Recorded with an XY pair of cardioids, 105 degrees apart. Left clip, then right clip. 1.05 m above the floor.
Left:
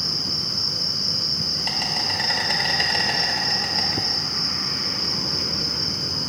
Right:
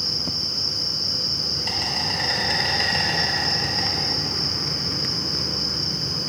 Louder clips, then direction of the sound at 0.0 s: Even; 35° left.